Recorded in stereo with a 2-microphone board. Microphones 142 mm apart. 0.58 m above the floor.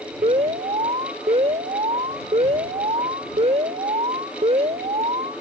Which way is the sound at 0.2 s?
50° right (ahead or behind).